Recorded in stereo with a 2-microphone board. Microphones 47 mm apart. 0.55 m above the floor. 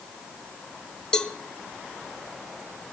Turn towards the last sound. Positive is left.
turn(degrees=15)  # may be behind; listen again after turning